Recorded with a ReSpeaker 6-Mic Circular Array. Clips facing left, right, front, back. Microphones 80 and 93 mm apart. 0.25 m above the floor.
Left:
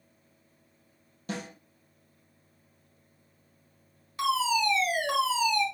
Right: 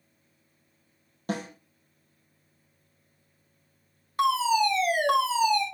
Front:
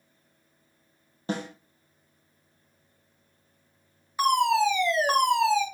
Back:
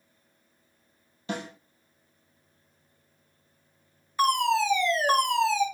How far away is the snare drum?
About 3.5 m.